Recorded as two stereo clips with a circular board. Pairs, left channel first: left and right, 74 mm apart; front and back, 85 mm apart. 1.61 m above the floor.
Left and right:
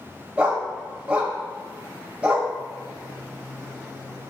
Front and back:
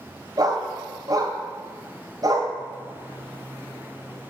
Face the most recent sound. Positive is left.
turn(degrees=-155)